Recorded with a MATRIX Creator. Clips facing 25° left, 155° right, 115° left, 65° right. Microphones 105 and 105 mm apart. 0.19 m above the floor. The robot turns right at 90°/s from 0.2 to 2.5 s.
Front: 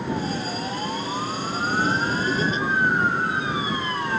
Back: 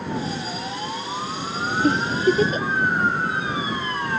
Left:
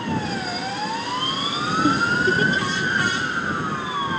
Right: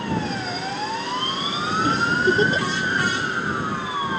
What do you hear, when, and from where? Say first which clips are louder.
1.8 s a giggle: back 4 dB, even; straight behind; by 2.7 s 120° right